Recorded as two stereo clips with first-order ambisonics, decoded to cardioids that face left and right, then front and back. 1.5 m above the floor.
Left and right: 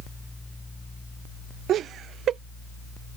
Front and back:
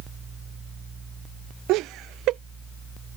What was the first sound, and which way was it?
Laughter, 145° right.